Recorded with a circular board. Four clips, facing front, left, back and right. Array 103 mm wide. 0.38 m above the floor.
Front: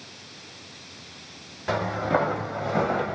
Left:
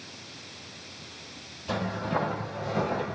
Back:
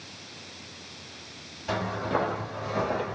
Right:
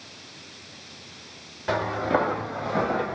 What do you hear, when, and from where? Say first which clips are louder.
1.7 s footsteps: right 6 dB, front 4 dB; 55° right, 2 m; by 3.1 s 35° right, 1.5 m